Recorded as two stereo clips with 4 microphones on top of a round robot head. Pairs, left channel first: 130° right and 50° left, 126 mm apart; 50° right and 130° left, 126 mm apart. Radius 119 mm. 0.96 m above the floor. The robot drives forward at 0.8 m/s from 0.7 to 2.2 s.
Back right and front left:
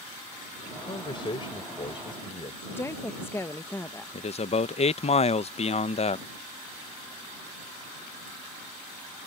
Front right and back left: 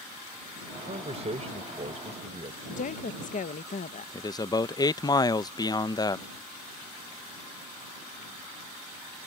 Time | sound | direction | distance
0.8 | a man speaking | 175° left | ?
2.7 | a woman speaking | 60° right | ?
4.1 | a man speaking | 105° right | ?